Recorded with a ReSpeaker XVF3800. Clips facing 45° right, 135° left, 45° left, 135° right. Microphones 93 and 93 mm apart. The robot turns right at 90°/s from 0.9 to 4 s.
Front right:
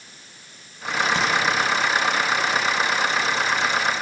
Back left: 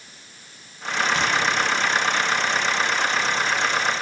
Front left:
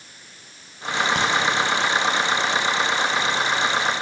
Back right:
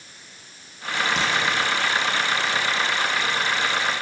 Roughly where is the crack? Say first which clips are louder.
Front right 1 dB, front left 2 dB; ahead.